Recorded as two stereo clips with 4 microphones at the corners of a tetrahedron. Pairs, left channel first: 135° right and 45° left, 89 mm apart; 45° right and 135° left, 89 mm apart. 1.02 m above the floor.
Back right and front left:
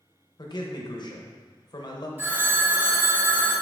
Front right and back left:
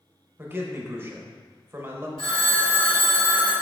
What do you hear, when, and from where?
0.4 s a man speaking: 165° right, 1.0 m
2.2 s a phone ringing: 25° right, 1.9 m